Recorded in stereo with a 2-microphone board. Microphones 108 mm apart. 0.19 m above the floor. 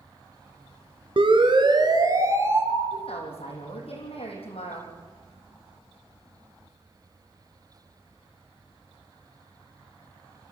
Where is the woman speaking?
65° left (ahead or behind), 8 m.